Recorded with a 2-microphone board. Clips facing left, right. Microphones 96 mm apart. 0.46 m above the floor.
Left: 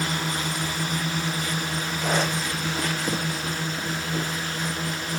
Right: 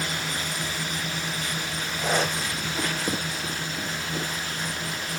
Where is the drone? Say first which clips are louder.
Left 3 dB; 45° left (ahead or behind).